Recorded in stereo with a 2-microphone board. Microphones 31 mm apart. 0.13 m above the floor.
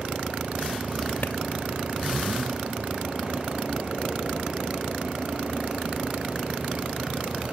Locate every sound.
1.2 s a clap: 80° left